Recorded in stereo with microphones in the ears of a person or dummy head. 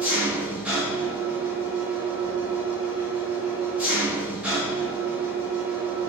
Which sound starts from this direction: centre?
An engine running, at 0.0 s.